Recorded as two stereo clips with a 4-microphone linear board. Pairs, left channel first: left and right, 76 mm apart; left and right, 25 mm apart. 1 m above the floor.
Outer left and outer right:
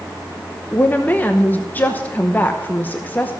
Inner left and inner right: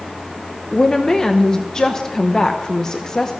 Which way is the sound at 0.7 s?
25° left (ahead or behind).